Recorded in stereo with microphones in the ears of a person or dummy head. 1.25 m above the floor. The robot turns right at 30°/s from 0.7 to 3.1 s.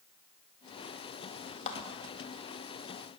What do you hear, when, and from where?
1.7 s a clap: 35° left (ahead or behind), 1.9 m; by 1.8 s 40° left (ahead or behind), 1.9 m